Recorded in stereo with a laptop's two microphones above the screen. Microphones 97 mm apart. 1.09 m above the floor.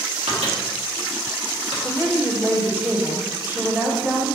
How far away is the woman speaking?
About 1.7 m.